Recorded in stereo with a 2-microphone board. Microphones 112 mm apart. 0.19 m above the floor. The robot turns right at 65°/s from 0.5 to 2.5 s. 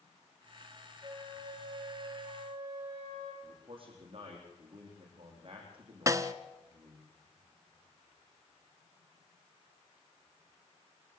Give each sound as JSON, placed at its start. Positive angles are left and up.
{"t": 1.0, "sound": "a flute", "azimuth_deg": -145, "distance_m": 7.0}
{"t": 3.4, "sound": "a man speaking", "side_deg": -50, "distance_m": 9.0}
{"t": 6.1, "sound": "a snare drum", "side_deg": -25, "distance_m": 1.0}